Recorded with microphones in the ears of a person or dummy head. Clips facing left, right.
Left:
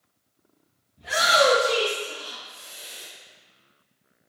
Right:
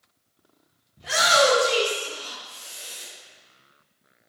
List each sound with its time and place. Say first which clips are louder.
1.0 s a shout: right 1 dB; 55° right (ahead or behind), 1.0 m; by 3.1 s 85° right, 2.5 m